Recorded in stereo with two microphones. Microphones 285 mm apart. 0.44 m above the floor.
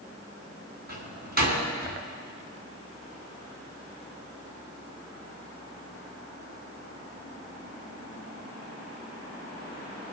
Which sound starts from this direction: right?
A door slam, at 0.9 s.